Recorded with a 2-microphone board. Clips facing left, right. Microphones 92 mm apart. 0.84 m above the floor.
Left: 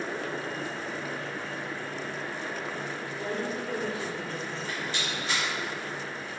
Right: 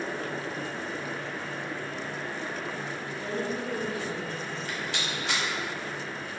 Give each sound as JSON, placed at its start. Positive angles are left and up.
{"t": 3.1, "sound": "a woman speaking", "side_deg": 30, "distance_m": 1.5}
{"t": 4.7, "sound": "a rattle", "side_deg": -80, "distance_m": 2.0}